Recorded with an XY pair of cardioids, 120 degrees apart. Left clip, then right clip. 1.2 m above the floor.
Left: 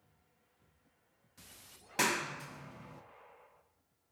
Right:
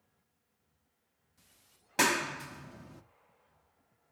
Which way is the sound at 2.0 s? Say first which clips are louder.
Right 4 dB; 25° right.